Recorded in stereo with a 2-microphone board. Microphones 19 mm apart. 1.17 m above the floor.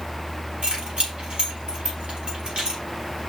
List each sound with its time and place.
0.6 s keys jangling: 85° right, 5 m